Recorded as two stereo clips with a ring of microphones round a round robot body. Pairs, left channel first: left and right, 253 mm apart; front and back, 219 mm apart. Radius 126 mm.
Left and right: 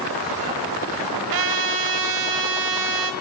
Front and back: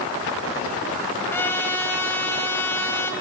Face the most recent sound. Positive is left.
turn(degrees=-80)